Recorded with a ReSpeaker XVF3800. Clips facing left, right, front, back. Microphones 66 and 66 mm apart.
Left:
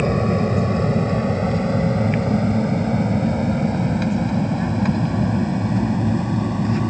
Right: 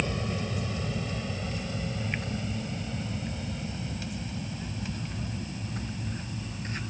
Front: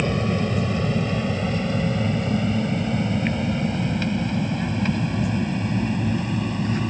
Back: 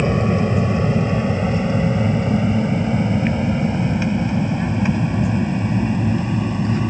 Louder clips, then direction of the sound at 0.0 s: Left 13 dB, back 5 dB; 115° left.